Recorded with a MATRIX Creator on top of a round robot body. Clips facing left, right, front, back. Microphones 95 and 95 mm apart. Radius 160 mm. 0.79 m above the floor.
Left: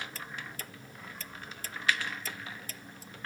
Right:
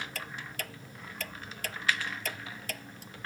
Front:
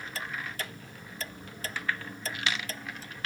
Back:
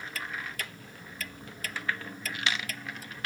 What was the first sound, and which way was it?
Ticking, 65° right.